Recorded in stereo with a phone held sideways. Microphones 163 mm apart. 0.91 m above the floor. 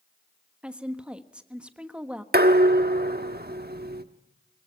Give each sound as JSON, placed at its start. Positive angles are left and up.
{"t": 0.6, "sound": "a woman speaking", "side_deg": -5, "distance_m": 1.3}
{"t": 2.3, "sound": "dishes clattering", "side_deg": -80, "distance_m": 1.1}